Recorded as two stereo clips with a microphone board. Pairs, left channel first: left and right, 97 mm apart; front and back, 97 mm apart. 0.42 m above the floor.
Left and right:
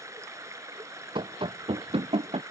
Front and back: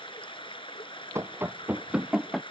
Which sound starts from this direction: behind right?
Running footsteps, at 1.1 s.